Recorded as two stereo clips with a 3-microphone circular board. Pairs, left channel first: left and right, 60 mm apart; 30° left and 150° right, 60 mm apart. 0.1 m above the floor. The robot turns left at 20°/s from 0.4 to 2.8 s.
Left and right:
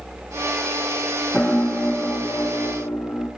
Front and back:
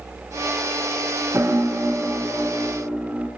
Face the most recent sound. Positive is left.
turn(degrees=135)